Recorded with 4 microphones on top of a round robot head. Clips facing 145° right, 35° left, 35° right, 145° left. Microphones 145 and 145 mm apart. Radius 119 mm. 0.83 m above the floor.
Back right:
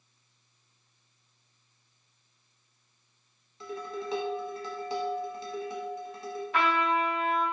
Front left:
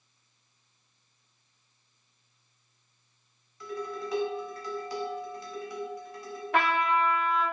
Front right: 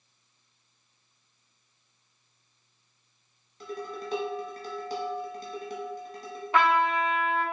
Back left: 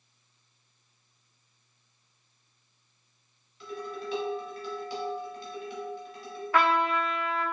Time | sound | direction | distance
3.6 | dishes clattering | 80° right | 0.8 m
6.5 | a trumpet | 35° left | 1.3 m